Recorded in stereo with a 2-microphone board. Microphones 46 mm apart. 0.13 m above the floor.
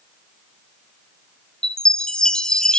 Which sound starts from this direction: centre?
A chime, at 1.6 s.